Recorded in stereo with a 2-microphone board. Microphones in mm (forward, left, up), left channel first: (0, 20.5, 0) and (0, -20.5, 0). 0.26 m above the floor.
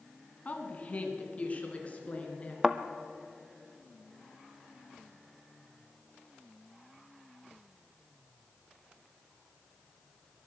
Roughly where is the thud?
Centre.